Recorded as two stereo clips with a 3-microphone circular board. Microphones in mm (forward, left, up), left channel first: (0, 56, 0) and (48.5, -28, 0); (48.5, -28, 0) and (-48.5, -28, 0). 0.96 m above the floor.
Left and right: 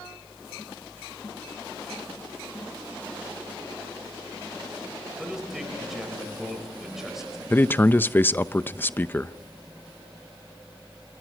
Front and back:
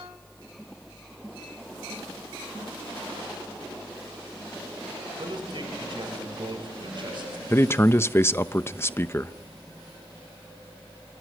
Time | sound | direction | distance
5.2 | a man speaking | 145° right | 5 m
7.5 | a man speaking | 55° left | 0.7 m